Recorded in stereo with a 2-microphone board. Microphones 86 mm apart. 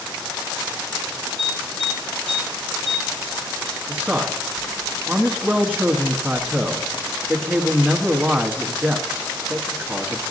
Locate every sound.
1.4 s an alarm: 10° left (ahead or behind), 6.5 m
3.9 s a man speaking: 15° right (ahead or behind), 1.1 m